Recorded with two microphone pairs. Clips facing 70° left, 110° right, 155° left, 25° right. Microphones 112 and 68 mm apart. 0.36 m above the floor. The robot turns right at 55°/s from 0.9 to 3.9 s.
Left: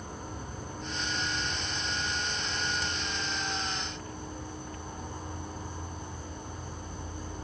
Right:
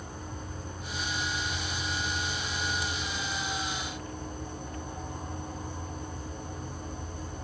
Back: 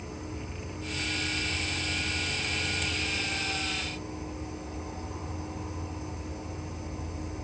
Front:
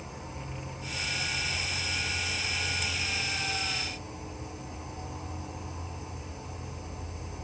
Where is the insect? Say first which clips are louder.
Even, back 2 dB; 40° left, 1.9 m; by 7.4 s 155° right, 1.9 m.